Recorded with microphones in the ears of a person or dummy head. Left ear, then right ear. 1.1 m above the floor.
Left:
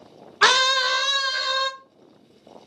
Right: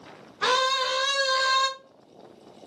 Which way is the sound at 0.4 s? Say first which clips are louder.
Left 6 dB; 60° left (ahead or behind).